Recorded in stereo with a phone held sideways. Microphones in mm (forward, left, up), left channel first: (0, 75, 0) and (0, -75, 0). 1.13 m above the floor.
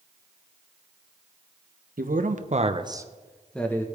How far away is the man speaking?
About 1.1 m.